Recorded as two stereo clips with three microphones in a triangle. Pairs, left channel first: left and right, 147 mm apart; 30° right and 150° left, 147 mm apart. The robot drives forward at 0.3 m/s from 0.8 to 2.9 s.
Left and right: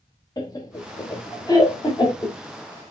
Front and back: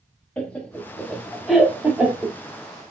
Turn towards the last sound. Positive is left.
turn(degrees=115)